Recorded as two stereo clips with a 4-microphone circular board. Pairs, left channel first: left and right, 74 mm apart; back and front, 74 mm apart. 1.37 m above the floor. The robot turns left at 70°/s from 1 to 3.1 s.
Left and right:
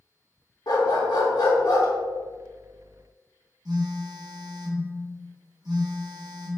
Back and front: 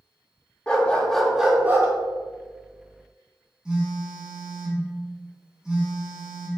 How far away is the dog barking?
About 1.6 m.